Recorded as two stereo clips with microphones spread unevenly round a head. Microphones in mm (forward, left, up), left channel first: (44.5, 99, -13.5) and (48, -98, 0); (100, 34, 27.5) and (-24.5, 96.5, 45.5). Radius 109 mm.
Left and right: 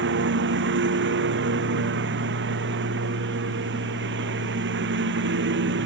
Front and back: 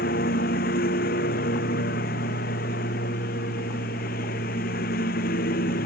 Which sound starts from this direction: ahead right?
A lawn mower, at 0.0 s.